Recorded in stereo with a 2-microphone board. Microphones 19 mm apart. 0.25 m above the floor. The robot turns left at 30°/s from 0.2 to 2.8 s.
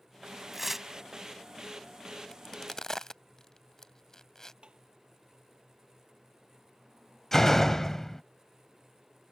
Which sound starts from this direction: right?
Tapping, at 4.6 s.